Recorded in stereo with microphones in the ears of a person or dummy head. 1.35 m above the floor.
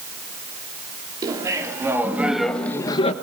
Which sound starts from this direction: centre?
Laughter, at 1.2 s.